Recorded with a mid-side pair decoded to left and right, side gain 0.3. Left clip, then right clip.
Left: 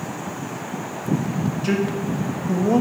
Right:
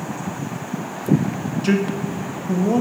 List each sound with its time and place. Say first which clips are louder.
1.6 s a man speaking: right 2 dB; 40° right, 0.7 m; by 2.8 s 15° left, 0.6 m